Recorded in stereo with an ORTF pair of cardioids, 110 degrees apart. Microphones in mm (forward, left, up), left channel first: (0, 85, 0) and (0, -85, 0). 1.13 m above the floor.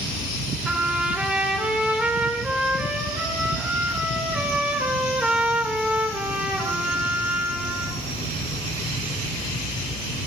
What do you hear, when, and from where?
0.7 s a trumpet: 5° right, 1.7 m